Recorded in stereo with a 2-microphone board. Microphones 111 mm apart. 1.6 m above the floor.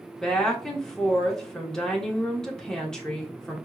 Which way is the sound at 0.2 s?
5° left (ahead or behind).